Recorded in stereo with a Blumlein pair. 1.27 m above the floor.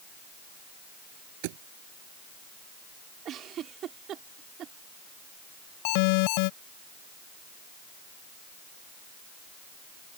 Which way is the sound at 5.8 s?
45° left.